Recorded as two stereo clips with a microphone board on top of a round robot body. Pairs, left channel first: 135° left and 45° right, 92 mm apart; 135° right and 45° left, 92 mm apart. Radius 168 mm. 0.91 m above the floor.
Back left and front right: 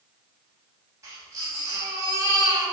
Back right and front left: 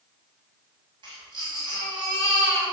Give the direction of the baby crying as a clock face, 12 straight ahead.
12 o'clock.